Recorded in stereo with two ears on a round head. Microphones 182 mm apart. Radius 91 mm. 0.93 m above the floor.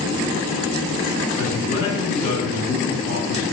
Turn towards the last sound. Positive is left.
turn(degrees=35)  # may be behind; listen again after turning